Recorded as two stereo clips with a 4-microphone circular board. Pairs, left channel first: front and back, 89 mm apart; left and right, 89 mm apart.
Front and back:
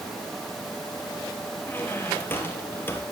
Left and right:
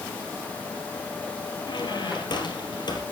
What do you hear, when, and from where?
1.6 s a squeak: 65° left, 2.5 m